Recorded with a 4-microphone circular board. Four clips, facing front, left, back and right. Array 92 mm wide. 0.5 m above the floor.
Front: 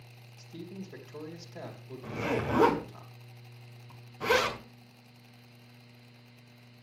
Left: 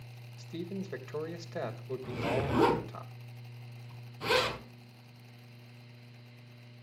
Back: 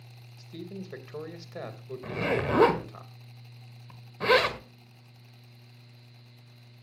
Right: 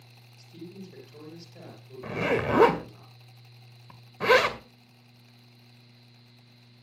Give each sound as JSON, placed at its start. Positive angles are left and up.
{"t": 0.4, "sound": "a man speaking", "azimuth_deg": 125, "distance_m": 3.0}
{"t": 2.0, "sound": "a zipper", "azimuth_deg": -115, "distance_m": 1.9}